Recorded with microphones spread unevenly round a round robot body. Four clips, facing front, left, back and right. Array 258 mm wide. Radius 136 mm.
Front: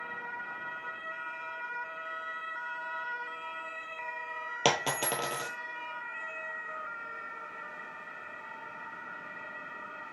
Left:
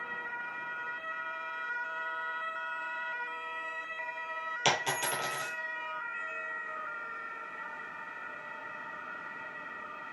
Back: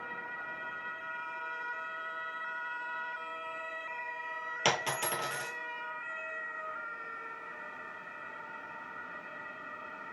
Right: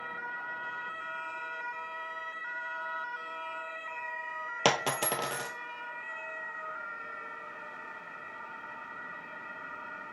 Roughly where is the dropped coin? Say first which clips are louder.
Right 3 dB, front 3 dB; ahead right.